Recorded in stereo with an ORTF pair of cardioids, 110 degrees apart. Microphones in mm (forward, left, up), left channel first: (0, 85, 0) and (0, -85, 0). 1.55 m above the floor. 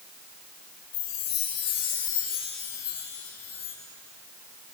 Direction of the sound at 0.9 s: 65° left.